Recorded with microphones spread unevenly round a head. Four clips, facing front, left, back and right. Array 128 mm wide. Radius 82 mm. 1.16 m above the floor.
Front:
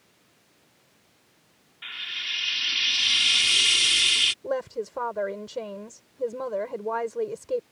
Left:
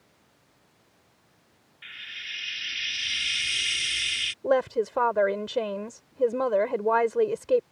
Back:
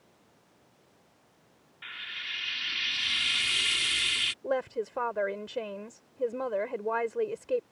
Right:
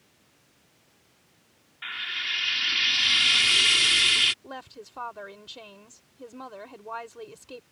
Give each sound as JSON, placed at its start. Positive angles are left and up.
{"t": 1.8, "sound": "frying", "azimuth_deg": -70}
{"t": 4.4, "sound": "a woman speaking", "azimuth_deg": 85}